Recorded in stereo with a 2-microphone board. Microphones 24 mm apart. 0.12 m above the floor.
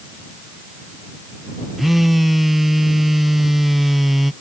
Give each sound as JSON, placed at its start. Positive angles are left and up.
{"t": 1.8, "sound": "a phone buzzing", "side_deg": -5}